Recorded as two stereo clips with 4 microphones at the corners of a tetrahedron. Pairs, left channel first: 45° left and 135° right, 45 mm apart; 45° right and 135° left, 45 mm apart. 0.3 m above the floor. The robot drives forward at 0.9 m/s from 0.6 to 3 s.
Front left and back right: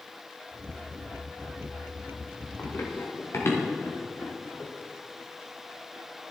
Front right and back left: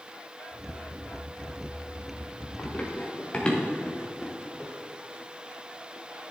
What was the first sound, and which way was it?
Running footsteps, 15° left.